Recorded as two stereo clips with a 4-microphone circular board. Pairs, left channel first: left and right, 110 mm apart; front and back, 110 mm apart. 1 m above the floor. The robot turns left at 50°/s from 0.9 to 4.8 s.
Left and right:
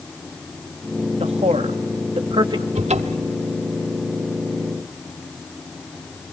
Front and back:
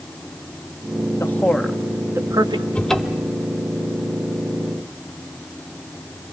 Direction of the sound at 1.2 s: 65° right.